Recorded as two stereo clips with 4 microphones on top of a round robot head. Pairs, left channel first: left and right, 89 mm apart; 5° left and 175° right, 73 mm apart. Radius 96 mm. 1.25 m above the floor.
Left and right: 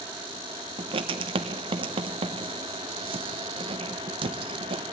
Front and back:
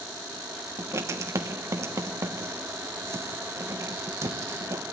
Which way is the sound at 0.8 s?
120° right.